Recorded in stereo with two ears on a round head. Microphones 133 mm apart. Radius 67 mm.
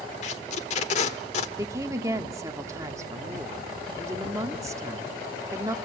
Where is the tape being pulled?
50° left (ahead or behind), 1.3 m.